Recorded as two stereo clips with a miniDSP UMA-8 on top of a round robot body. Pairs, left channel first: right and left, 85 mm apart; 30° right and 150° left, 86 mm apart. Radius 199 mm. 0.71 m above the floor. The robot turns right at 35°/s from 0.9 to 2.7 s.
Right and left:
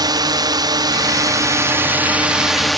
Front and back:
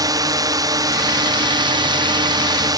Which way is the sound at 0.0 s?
120° left.